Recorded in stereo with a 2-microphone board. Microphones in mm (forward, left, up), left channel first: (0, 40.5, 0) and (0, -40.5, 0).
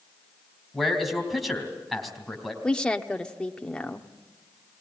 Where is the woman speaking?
10° left (ahead or behind), 1.0 m.